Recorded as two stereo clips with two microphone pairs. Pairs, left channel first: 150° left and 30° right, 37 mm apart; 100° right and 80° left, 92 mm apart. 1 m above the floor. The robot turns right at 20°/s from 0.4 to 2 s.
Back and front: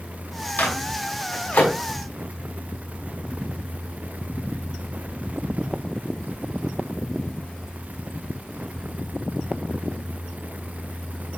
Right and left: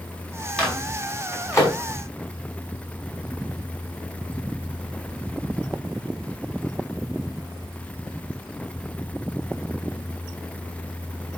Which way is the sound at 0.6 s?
Straight behind.